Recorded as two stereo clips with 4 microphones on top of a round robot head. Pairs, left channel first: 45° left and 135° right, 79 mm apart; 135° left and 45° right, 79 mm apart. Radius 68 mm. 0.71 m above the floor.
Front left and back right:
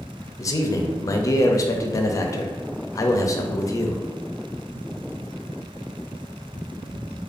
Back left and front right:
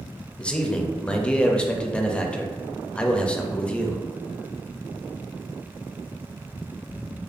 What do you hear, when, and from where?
0.4 s a man speaking: 65° left, 0.6 m